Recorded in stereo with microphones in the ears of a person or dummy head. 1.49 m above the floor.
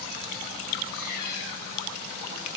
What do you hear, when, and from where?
0.9 s a cat meowing: 65° left (ahead or behind), 5 m